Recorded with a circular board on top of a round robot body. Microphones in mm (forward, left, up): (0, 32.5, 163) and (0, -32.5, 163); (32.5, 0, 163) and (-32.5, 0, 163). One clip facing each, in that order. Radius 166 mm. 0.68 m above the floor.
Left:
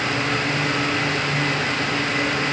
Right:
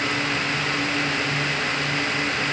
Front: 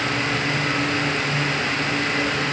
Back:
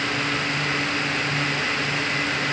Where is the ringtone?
No ringtone in this recording.